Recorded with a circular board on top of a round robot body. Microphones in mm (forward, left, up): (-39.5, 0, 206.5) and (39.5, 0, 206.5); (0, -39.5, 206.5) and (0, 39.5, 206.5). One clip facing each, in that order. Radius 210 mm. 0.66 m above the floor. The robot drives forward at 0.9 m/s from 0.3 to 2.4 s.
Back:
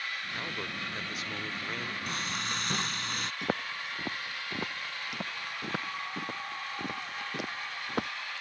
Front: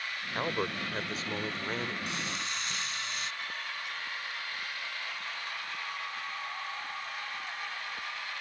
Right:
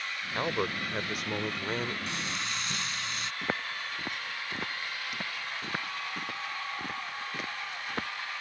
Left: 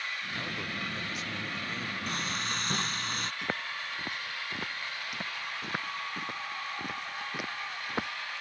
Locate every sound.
0.3 s a man speaking: 50° right; by 2.0 s 65° right
2.1 s frying: 135° left
3.4 s footsteps: 175° right; by 8.1 s 165° left